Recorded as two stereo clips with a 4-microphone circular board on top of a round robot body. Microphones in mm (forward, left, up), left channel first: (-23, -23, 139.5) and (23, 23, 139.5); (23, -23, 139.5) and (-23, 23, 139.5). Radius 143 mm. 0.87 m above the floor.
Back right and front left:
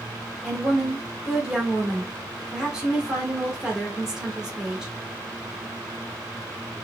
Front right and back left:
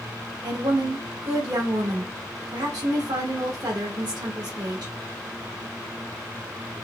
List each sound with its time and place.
0.4 s a woman speaking: 125° left, 1.8 m